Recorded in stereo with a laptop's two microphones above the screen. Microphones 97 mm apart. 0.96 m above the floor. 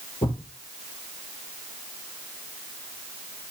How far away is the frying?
No frying in this recording.